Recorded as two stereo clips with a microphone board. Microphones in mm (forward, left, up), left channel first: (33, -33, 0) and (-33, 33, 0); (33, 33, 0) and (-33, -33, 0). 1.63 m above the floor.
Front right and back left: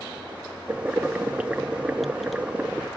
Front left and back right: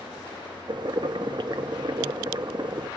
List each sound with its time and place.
0.7 s boiling: 150° right, 0.6 m